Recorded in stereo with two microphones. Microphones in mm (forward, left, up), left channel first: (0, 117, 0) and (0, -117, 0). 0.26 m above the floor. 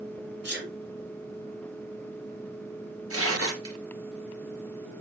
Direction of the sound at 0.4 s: 50° right (ahead or behind).